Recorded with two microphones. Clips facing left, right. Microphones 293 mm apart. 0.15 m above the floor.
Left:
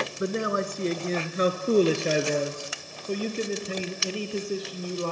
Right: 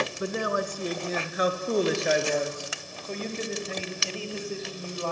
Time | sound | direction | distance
0.2 | a man speaking | 20° left (ahead or behind) | 2 m